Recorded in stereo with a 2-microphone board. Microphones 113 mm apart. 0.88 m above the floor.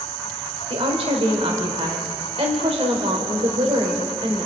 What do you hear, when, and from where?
0.7 s a woman speaking: 60° right (ahead or behind), 4 m